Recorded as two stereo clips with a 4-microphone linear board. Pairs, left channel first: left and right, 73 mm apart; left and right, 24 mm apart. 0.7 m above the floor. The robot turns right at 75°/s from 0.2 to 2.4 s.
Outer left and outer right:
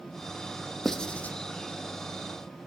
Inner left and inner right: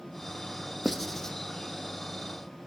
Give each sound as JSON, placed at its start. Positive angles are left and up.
{"t": 0.8, "sound": "writing", "side_deg": 5, "distance_m": 0.8}